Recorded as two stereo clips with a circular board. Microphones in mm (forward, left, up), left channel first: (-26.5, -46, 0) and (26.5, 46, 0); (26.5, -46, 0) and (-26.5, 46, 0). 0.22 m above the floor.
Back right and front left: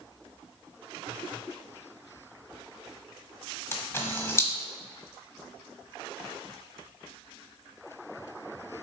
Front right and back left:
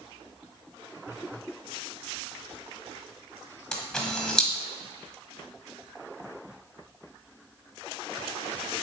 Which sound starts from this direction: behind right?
A camera shutter, at 3.7 s.